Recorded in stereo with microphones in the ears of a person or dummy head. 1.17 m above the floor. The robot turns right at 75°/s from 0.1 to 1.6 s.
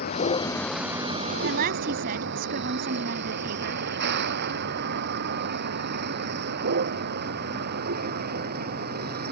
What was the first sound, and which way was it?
A vehicle, 45° left (ahead or behind).